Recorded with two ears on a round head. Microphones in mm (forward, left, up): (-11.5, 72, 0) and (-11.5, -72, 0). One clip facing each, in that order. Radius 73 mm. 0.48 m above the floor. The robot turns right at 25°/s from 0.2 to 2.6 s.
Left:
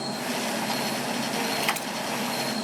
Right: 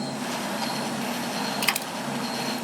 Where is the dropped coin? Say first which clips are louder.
Left 1 dB; 55° right (ahead or behind), 1.2 m; by 1.9 s 50° right (ahead or behind), 1.2 m.